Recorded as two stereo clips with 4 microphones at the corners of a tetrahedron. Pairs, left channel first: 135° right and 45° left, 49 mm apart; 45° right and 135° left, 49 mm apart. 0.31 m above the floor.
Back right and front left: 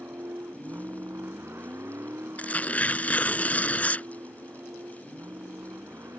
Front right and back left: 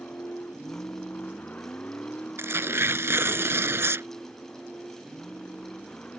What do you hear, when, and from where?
0.0 s a vehicle: 5° left; by 6.2 s 20° left
2.4 s tearing paper: 165° left